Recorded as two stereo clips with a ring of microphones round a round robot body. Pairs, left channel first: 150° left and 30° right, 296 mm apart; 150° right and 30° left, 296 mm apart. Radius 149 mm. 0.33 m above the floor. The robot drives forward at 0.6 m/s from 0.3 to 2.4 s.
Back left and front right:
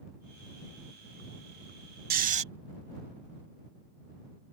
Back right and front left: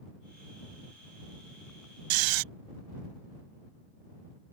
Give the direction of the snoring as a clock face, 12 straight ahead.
11 o'clock.